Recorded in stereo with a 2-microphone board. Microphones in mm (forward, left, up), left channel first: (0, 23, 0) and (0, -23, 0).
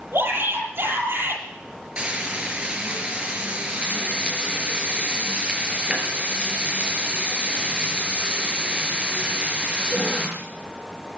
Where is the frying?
25° right (ahead or behind), 5.5 m.